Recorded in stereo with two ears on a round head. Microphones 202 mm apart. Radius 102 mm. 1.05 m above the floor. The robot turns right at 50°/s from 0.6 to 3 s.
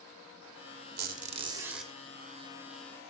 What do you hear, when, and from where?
1.0 s a squeak: 45° right, 1.3 m; by 1.9 s 5° left, 1.3 m